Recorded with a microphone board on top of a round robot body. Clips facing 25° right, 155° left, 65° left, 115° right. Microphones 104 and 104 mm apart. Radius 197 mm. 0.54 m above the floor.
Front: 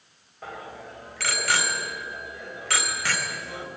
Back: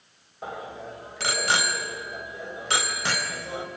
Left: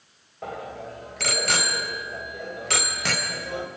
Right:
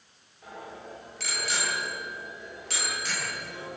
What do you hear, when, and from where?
0.4 s a bicycle bell: 90° left, 2.5 m